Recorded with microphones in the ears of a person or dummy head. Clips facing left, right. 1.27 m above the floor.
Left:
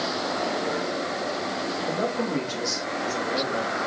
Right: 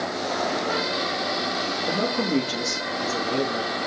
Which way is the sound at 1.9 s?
45° right (ahead or behind).